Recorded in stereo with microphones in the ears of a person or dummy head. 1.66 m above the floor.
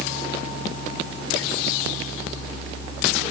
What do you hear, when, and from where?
Only background noise.